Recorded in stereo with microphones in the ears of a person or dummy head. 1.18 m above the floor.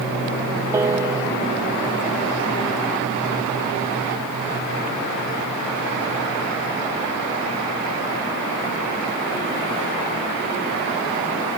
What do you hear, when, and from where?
0.7 s a piano: 15° right (ahead or behind)